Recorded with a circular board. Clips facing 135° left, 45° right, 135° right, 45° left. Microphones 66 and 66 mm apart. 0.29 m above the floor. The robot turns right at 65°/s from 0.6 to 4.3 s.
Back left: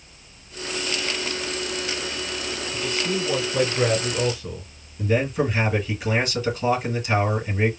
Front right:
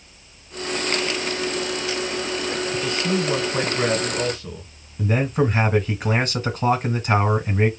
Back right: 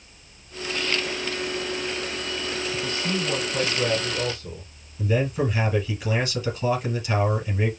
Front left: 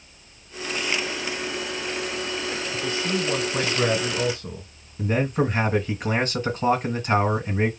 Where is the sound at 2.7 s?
55° right, 2.5 m; by 4.7 s 50° left, 2.5 m.